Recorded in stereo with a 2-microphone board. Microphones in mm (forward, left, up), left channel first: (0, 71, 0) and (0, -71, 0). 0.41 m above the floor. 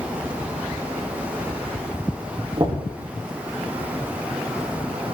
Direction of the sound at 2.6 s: 35° right (ahead or behind).